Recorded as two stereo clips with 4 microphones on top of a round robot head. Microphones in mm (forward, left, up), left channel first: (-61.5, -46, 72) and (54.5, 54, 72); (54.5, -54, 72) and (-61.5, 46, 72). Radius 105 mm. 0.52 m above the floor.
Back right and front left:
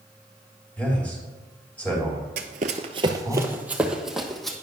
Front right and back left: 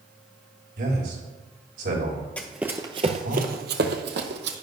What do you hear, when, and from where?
0.8 s a man speaking: 140° left, 4.5 m
2.4 s running footsteps: 35° left, 0.6 m; by 4.5 s 135° left, 1.2 m